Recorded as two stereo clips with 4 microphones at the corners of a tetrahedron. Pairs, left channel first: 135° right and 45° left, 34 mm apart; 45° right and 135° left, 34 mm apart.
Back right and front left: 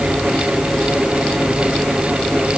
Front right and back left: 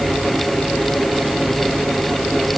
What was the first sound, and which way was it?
Only background noise.